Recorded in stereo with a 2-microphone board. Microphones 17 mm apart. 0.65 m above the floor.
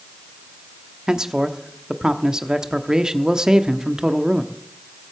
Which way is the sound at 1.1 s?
40° right (ahead or behind).